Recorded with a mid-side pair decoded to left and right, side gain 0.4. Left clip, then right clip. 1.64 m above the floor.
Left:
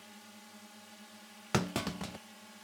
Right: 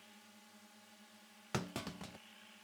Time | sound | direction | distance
0.0 | a drone | 60° left | ?
1.5 | a clunk | 60° left | ?